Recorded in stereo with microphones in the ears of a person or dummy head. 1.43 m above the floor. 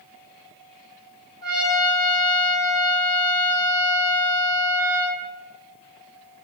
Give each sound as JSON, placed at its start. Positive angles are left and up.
{"t": 1.4, "sound": "a trumpet", "side_deg": 15, "distance_m": 1.8}